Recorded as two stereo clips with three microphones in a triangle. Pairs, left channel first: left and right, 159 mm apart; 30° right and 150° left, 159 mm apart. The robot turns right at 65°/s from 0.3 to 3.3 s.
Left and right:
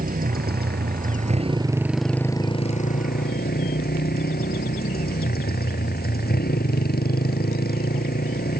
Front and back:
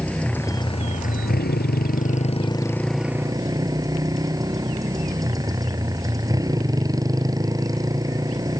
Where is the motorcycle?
110° right; by 8.6 s 85° left.